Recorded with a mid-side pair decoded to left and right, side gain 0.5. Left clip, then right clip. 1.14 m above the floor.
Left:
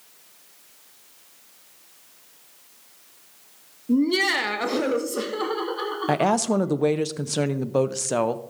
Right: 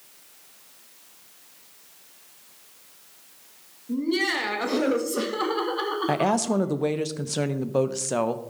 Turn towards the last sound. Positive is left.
turn(degrees=20)